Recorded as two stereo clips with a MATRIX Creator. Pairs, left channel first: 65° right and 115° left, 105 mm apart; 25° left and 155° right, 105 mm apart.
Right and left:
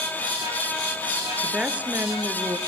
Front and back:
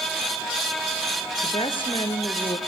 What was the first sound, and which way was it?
A woman speaking, 35° left.